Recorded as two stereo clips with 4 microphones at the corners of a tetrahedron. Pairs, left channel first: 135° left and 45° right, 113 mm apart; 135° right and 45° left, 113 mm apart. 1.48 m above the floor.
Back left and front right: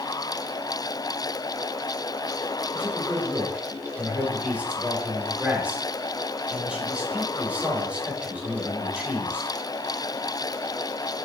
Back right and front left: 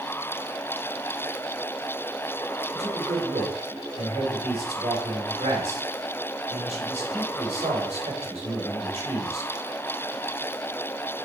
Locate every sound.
2.7 s a man speaking: 30° left, 3.5 m